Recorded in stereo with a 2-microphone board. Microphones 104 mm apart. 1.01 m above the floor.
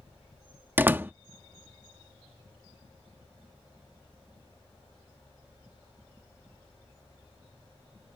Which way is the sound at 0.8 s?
20° right (ahead or behind).